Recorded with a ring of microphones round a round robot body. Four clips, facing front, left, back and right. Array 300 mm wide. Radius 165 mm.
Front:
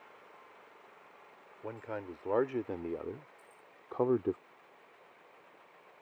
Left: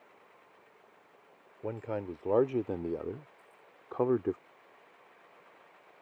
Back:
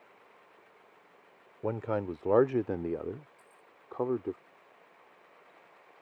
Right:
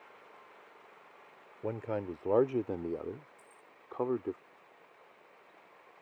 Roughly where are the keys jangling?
Right.